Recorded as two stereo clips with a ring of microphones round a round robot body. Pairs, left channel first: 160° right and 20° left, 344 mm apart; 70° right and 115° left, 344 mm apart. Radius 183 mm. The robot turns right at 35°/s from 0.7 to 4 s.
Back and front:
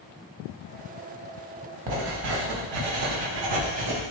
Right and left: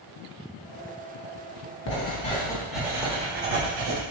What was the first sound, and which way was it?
Writing, 10° right.